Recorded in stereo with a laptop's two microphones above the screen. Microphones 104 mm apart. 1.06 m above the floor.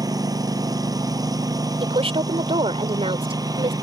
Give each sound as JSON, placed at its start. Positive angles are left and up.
{"t": 0.0, "sound": "a lawn mower", "side_deg": -35}
{"t": 1.8, "sound": "a woman speaking", "side_deg": -65}